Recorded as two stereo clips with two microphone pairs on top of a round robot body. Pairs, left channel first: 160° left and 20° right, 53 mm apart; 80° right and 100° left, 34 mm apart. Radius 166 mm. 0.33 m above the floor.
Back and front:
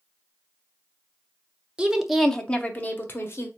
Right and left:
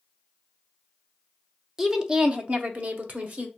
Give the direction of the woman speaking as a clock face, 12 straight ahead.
12 o'clock.